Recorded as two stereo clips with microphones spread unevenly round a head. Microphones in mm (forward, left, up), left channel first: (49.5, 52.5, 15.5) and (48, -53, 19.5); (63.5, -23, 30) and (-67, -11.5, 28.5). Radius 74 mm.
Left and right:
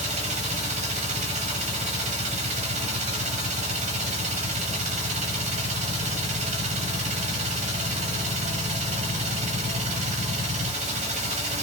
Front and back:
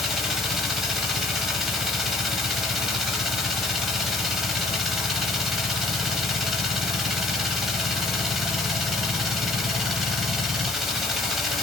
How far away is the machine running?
About 0.8 m.